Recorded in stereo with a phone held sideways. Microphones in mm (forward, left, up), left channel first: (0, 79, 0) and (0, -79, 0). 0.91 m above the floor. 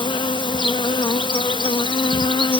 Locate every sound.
0.0 s an insect: 30° left (ahead or behind)